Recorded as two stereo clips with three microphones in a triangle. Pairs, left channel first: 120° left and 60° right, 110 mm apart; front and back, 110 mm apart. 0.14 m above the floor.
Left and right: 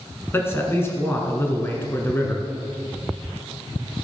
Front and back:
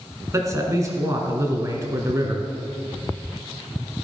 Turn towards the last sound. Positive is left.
turn(degrees=160)